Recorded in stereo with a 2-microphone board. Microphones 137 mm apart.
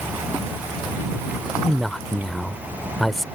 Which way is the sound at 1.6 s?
Centre (ahead or behind).